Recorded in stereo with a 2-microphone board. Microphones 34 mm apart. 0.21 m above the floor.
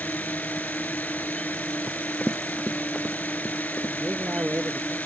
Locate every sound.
0.0 s a drone: 55° left (ahead or behind)
1.9 s running footsteps: 25° right (ahead or behind); by 3.9 s 30° left (ahead or behind)
4.0 s a man speaking: 55° right (ahead or behind)